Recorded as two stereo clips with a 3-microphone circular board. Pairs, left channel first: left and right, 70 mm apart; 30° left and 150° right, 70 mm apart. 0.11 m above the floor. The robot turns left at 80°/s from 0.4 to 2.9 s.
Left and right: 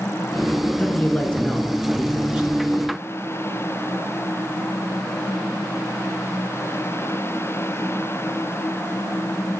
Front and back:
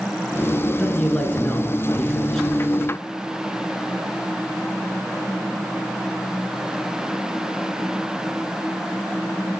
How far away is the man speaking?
About 1.1 m.